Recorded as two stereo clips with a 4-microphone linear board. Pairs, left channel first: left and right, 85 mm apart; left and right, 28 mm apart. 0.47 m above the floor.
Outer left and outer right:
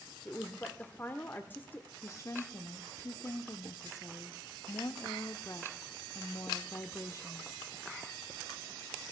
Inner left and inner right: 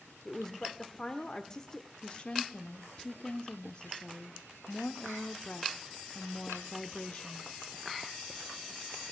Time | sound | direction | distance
0.2 | a woman speaking | 20° left (ahead or behind) | 1.0 m
2.0 | a woman speaking | 35° left (ahead or behind) | 0.8 m